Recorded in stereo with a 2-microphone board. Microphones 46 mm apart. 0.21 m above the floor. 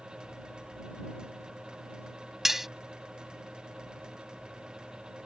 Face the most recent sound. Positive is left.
turn(degrees=-5)  # may be behind; listen again after turning